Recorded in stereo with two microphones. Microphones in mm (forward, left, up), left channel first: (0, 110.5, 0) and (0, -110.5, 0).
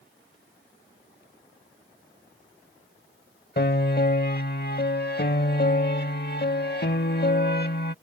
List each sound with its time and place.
3.6 s a piano: 50° left (ahead or behind)